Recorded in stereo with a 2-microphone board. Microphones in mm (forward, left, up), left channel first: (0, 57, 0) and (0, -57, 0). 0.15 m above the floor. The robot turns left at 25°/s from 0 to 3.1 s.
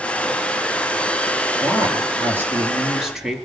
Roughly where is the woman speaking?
Behind right.